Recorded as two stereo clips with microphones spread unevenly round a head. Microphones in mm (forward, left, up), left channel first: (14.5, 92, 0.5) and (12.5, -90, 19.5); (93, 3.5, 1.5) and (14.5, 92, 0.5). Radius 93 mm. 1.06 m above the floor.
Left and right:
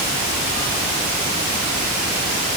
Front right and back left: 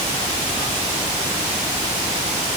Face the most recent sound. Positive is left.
No sound to turn to.